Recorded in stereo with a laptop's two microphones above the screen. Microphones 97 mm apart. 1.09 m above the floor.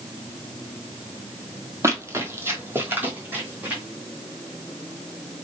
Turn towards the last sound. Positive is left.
turn(degrees=-15)  # may be behind; listen again after turning